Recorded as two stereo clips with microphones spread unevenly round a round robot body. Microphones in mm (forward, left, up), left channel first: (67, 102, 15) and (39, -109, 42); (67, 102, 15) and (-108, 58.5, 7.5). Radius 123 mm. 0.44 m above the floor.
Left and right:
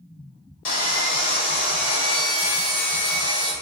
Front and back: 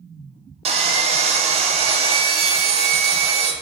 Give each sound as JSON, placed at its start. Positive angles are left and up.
{"t": 0.7, "sound": "sawing", "azimuth_deg": 135, "distance_m": 0.5}